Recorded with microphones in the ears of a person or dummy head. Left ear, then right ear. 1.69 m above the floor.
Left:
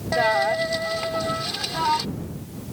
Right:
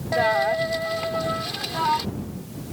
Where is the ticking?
No ticking in this recording.